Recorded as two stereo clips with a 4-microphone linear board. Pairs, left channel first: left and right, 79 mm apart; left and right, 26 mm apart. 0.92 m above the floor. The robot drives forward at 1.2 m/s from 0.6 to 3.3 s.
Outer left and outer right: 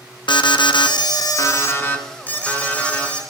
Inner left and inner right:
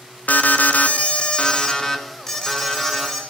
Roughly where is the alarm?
Left.